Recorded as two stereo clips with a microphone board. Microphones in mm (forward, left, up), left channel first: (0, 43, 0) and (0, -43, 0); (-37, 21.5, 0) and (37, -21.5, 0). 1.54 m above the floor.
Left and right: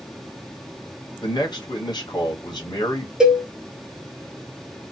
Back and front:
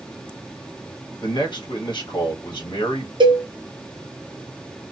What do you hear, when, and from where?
1.2 s a man speaking: 125° left, 1.2 m
3.2 s a cowbell: 10° right, 0.7 m